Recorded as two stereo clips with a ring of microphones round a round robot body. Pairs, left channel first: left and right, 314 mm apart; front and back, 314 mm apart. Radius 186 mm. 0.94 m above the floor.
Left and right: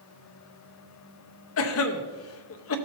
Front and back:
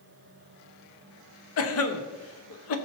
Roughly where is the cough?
Ahead left.